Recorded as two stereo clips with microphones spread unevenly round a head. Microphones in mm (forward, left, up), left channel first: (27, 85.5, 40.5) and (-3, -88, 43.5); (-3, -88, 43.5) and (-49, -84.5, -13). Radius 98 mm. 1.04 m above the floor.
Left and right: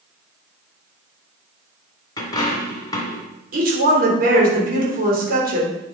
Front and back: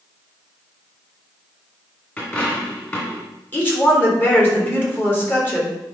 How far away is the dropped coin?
About 2 m.